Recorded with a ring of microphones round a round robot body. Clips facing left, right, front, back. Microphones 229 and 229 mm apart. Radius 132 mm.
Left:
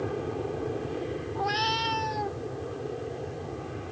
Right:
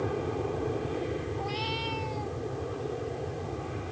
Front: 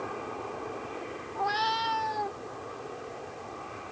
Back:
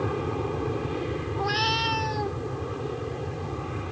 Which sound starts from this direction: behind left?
A cat meowing, at 1.4 s.